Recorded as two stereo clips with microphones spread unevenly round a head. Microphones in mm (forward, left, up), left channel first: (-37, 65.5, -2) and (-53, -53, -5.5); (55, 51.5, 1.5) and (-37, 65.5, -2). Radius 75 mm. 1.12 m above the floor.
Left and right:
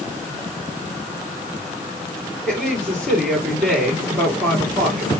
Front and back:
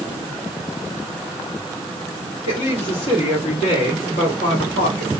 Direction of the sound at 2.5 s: 10° right.